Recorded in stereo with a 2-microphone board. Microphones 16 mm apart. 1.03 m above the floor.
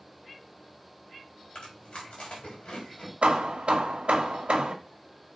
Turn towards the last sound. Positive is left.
turn(degrees=-85)